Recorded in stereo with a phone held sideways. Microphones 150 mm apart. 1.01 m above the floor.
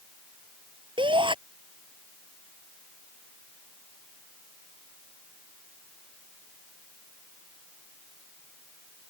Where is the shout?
35° right (ahead or behind).